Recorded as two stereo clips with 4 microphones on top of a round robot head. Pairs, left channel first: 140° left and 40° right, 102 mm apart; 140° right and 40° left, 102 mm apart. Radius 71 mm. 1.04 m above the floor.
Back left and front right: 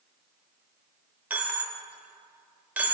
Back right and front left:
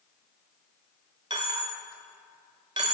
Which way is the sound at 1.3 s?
25° left.